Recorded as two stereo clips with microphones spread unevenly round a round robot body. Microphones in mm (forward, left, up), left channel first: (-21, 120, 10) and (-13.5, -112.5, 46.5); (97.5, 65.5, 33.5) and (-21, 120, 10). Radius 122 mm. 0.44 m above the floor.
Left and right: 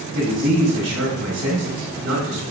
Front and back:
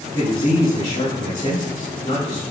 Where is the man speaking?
95° right, 1.7 m.